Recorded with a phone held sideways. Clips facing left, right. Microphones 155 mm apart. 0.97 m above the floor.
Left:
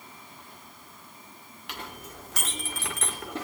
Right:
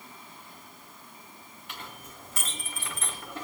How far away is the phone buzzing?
I don't hear a phone buzzing.